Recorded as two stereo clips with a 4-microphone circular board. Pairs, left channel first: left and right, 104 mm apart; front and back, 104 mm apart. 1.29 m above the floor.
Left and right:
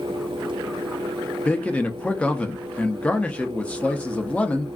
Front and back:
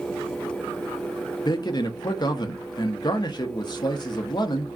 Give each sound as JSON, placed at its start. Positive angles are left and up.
{"t": 1.4, "sound": "a man speaking", "azimuth_deg": 20, "distance_m": 0.5}